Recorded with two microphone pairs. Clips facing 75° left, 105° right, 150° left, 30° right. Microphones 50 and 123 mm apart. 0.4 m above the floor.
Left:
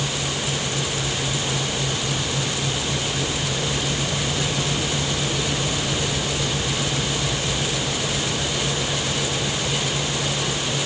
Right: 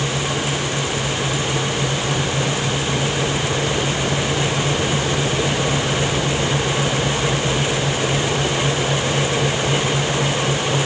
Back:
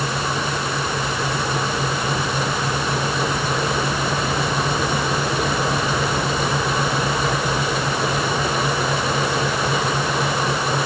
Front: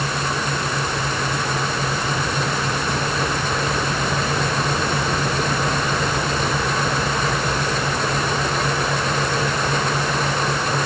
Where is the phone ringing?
No phone ringing in this recording.